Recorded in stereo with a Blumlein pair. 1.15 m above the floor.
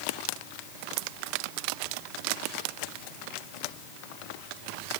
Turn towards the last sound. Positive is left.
No sound to turn to.